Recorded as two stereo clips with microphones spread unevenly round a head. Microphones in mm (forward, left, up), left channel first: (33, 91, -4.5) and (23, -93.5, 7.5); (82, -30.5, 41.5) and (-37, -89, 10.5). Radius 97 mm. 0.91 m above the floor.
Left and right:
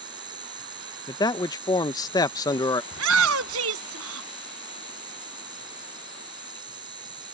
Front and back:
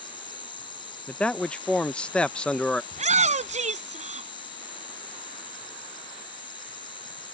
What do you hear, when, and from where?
0.0 s an insect: 25° right
1.1 s a man speaking: 130° left
2.9 s a shout: 120° right